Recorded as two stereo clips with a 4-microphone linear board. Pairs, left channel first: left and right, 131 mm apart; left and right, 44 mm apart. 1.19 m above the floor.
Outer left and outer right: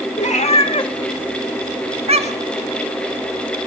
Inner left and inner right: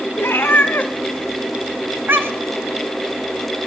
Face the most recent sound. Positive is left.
turn(degrees=-65)  # may be behind; listen again after turning